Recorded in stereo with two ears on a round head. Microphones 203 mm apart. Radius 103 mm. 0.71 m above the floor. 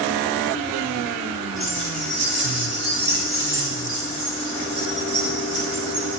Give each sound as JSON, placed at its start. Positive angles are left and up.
{"t": 1.6, "sound": "keys jangling", "side_deg": 10, "distance_m": 5.0}